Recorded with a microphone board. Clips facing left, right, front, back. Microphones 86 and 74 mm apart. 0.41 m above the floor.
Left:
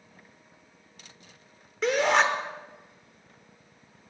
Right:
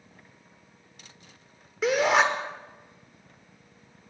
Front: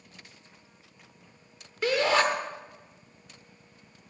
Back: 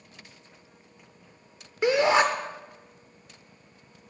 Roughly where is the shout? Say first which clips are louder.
Right 1 dB, back 3 dB; behind.